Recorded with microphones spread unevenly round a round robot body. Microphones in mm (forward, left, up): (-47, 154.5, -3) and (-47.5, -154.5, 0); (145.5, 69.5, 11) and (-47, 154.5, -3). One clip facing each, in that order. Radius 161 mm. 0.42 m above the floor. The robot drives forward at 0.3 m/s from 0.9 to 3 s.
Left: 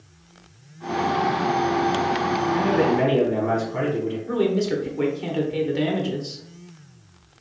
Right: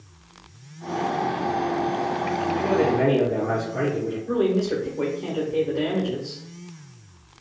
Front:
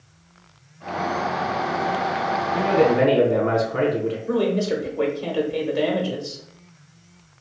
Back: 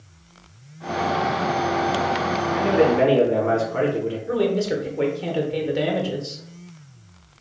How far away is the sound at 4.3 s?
About 0.9 m.